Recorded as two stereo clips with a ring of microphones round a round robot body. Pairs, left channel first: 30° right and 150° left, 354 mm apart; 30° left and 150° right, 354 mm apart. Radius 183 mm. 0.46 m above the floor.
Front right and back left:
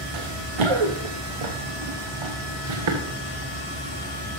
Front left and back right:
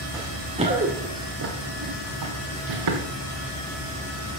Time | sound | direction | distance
0.1 | running footsteps | 125° left | 2 m